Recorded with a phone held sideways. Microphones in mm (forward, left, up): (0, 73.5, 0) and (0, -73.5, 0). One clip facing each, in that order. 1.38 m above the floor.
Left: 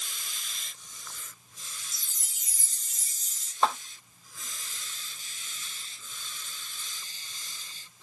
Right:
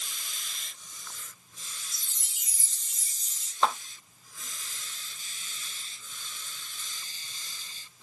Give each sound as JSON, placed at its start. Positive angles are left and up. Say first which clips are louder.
{"t": 1.9, "sound": "a chime", "louder": "even", "side_deg": 45, "distance_m": 0.9}
{"t": 3.6, "sound": "a clap", "louder": "even", "side_deg": 5, "distance_m": 4.0}